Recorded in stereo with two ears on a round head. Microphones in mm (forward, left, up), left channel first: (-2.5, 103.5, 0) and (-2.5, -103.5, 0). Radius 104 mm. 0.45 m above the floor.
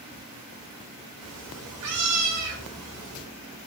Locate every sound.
1.2 s a cat meowing: 80° right, 3 m; by 3.2 s 70° right (ahead or behind), 4.5 m